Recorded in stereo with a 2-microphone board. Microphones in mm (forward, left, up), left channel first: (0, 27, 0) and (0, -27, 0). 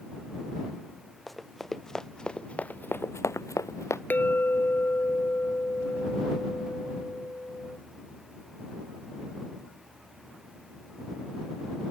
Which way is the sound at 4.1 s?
40° left (ahead or behind).